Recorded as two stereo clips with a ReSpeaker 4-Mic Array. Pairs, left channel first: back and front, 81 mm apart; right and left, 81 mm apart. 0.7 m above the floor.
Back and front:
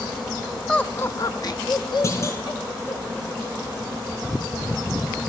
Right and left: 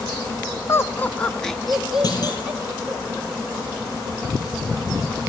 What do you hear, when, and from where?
0.7 s laughter: 100° right, 0.6 m; by 3.0 s 165° left, 1.9 m
2.0 s a clunk: 125° right, 3.5 m